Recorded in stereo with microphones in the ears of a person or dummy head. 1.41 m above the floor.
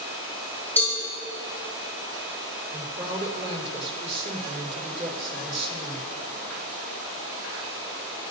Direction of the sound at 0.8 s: 10° left (ahead or behind).